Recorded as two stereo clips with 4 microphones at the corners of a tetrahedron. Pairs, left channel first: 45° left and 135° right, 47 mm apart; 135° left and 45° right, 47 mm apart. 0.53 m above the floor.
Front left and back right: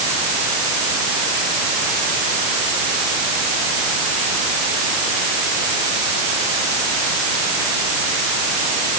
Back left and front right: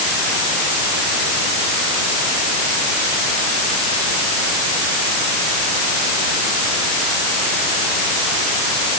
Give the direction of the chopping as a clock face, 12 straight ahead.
I don't hear chopping.